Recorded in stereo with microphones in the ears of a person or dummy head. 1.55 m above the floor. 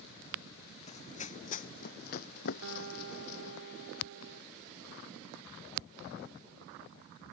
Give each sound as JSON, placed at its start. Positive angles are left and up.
{"t": 0.9, "sound": "running footsteps", "side_deg": 35}
{"t": 2.6, "sound": "a guitar", "side_deg": -65}